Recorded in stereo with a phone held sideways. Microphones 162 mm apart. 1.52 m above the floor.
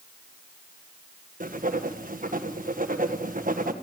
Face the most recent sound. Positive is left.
turn(degrees=-65)  # may be behind; listen again after turning